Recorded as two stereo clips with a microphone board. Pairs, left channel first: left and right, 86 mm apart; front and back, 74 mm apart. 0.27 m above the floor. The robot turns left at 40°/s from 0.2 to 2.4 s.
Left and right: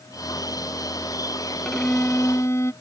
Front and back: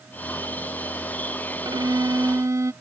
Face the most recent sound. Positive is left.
turn(degrees=140)